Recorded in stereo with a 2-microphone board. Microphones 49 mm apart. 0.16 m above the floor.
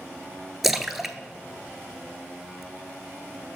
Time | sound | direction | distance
0.6 | a splash | 5° right (ahead or behind) | 0.6 m